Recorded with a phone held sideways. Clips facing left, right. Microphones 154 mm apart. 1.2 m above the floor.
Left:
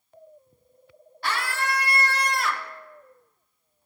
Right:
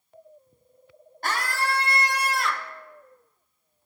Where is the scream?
45° right (ahead or behind), 1.0 m; by 2.7 s 15° left (ahead or behind), 0.7 m.